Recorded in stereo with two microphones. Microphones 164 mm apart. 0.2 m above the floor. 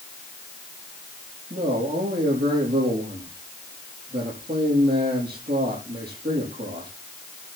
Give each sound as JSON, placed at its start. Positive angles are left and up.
{"t": 1.5, "sound": "a man speaking", "side_deg": -75, "distance_m": 7.0}